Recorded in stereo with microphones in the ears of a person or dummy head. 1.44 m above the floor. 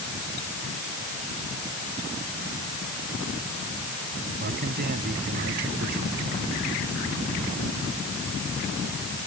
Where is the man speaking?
50° right (ahead or behind).